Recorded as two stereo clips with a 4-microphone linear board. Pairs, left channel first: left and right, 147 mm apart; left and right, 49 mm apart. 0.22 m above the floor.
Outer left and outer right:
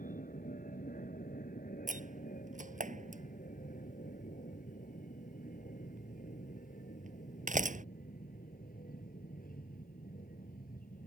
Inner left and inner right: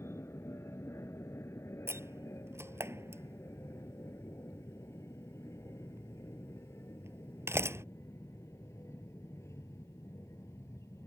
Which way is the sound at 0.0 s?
65° left (ahead or behind).